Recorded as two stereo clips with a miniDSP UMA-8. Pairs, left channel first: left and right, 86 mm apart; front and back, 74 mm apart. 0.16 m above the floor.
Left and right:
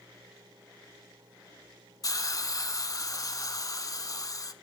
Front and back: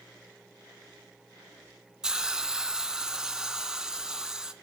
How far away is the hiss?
About 0.6 m.